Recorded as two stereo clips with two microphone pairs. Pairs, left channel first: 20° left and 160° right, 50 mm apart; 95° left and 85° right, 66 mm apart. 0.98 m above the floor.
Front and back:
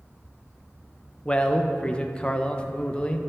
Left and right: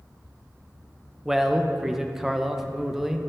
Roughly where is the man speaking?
Ahead.